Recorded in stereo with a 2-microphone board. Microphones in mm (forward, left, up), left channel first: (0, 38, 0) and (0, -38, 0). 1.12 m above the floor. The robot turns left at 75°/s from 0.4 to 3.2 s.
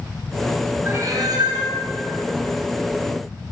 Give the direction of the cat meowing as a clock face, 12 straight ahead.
1 o'clock.